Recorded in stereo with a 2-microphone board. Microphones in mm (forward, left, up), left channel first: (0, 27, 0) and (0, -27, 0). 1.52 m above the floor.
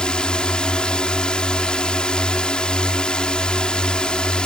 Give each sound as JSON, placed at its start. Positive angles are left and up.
{"t": 0.0, "sound": "a drone", "side_deg": 15}